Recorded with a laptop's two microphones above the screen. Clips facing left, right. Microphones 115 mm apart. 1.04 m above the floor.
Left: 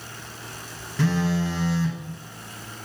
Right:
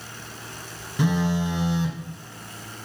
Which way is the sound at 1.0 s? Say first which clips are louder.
Even; 20° right (ahead or behind).